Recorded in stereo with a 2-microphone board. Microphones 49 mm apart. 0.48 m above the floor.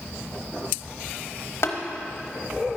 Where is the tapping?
60° left (ahead or behind), 0.9 m.